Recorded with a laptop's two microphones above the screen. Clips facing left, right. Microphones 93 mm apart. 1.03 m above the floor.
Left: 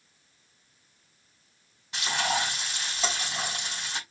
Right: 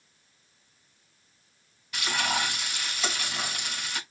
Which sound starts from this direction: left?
Frying, at 1.9 s.